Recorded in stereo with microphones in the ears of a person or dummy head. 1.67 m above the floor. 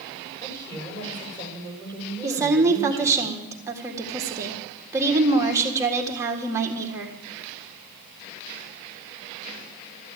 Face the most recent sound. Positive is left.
turn(degrees=-15)  # may be behind; listen again after turning